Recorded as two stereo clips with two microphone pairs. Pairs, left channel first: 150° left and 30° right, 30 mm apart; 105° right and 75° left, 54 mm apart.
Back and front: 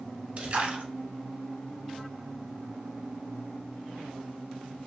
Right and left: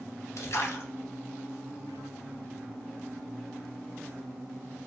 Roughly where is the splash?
Right.